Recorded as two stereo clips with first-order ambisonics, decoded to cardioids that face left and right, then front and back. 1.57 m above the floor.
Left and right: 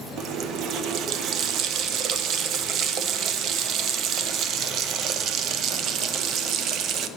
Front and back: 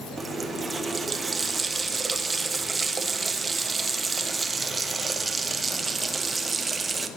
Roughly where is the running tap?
Right.